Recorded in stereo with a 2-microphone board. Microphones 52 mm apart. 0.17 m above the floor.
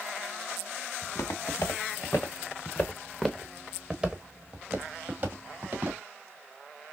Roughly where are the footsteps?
Left.